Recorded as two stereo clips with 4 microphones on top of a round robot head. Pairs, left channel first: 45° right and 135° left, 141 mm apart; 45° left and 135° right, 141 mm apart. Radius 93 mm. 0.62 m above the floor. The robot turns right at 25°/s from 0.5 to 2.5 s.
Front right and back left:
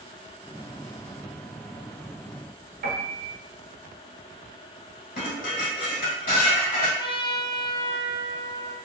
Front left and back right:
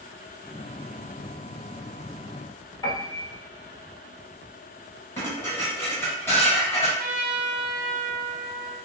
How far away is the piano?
About 0.9 m.